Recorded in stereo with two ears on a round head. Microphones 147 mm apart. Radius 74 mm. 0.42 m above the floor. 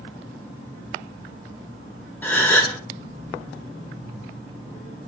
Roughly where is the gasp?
Centre.